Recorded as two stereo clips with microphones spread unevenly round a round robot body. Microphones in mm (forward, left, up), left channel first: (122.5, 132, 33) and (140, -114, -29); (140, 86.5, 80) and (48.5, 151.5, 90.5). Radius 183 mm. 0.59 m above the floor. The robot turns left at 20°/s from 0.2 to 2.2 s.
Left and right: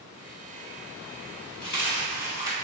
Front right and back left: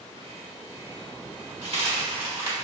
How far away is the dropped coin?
About 1.6 m.